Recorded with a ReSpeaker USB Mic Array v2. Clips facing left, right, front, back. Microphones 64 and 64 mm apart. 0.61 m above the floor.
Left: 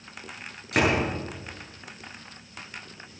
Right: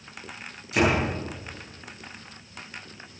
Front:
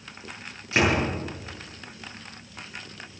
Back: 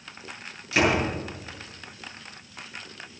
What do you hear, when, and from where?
0.7 s a door slam: 60° left, 8 m